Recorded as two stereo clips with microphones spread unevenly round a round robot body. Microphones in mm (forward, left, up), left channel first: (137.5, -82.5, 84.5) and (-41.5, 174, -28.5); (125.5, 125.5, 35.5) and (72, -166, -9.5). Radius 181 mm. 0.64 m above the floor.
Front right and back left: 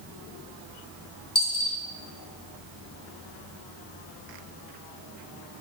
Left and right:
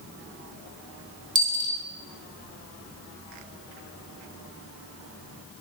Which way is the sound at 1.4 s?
70° right.